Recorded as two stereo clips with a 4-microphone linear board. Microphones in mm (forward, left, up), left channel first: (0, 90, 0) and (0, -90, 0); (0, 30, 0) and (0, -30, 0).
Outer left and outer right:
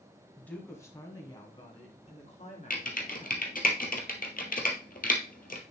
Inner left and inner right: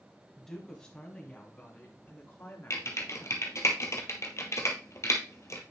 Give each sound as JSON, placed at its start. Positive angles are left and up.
{"t": 0.4, "sound": "a woman speaking", "side_deg": 5, "distance_m": 1.6}
{"t": 2.7, "sound": "typing on a keyboard", "side_deg": 50, "distance_m": 1.2}